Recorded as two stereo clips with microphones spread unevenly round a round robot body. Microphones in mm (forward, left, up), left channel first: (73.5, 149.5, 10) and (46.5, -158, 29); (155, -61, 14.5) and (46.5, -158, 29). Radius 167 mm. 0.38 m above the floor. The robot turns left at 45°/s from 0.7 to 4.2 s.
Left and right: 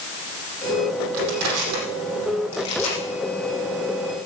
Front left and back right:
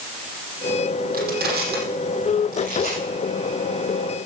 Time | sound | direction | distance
1.1 | crushing | 130° right | 5 m